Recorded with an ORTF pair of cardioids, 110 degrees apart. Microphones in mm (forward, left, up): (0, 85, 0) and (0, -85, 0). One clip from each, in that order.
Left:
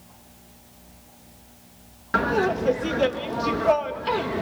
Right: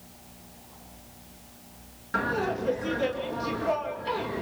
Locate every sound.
2.1 s laughter: 45° left, 2 m